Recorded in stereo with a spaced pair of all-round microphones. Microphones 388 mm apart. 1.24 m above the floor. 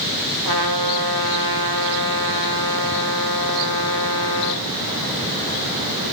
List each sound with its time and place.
0.5 s a trumpet: 70° left (ahead or behind), 5 m